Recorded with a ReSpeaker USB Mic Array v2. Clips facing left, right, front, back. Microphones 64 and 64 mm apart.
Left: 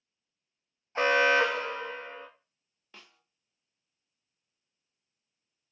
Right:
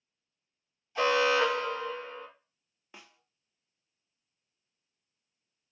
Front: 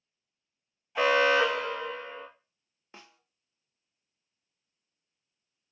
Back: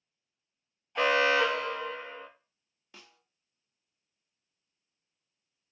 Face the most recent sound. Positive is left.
turn(degrees=-30)